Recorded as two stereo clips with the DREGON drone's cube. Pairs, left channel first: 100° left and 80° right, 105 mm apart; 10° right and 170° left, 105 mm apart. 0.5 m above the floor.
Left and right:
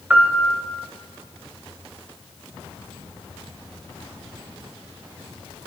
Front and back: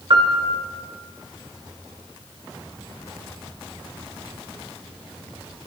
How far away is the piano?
About 1.8 m.